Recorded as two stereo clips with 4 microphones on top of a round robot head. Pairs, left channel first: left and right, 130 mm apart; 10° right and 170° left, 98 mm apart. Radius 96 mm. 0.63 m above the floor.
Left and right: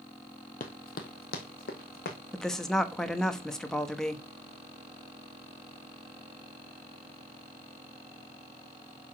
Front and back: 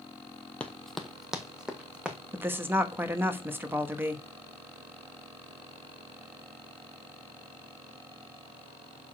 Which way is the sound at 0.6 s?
65° left.